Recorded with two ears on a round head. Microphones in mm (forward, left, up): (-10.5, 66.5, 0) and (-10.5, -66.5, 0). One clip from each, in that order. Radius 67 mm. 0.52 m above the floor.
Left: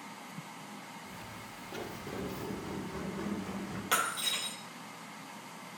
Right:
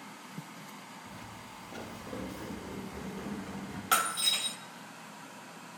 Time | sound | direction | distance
1.1 | footsteps | 70° left (ahead or behind) | 3.5 m
3.9 | breaking glass | 5° right (ahead or behind) | 1.1 m